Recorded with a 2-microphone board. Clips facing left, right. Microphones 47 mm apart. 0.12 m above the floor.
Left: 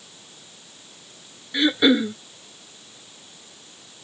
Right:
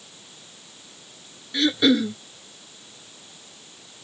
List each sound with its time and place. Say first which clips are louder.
1.5 s throat clearing: left 1 dB; 20° left (ahead or behind)